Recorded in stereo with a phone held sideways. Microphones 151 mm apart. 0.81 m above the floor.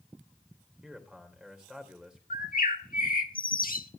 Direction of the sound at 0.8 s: 5° right (ahead or behind).